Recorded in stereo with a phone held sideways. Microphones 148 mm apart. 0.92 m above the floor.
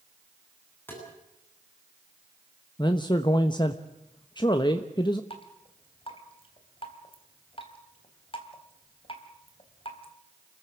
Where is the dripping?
40° left (ahead or behind), 3.5 m.